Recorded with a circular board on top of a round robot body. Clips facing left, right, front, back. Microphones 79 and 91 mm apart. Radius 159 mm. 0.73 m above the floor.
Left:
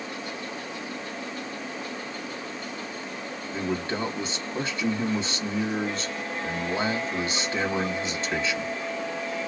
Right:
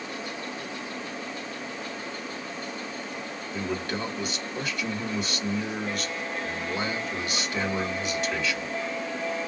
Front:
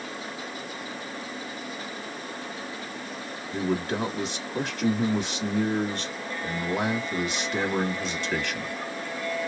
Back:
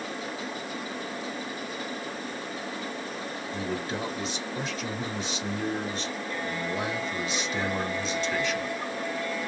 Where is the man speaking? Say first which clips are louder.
Left 2 dB, front 6 dB; 30° left, 1.8 m.